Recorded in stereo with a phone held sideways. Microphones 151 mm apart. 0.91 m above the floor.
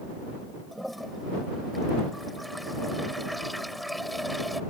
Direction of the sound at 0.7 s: Centre (ahead or behind).